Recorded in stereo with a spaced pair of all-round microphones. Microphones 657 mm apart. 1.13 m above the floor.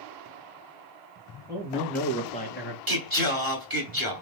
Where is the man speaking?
5° right (ahead or behind), 1.7 m; by 2.8 s 20° left (ahead or behind), 1.2 m.